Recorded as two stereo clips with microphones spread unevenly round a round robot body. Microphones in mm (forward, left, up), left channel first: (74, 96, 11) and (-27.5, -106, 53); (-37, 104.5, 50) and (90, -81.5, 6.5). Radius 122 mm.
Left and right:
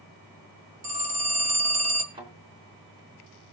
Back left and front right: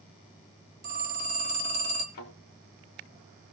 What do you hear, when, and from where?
0.8 s a phone ringing: 105° right, 2.5 m
2.1 s a thud: 170° left, 3.5 m